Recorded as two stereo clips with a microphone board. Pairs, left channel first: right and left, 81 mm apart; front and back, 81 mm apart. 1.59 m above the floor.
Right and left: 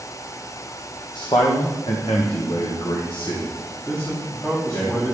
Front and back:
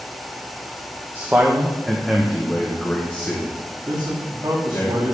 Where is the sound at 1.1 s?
115° right, 1.1 m; by 4.9 s 55° right, 2 m.